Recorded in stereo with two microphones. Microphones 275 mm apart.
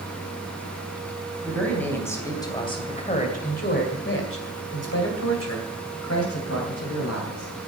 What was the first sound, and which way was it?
A man speaking, 5° left (ahead or behind).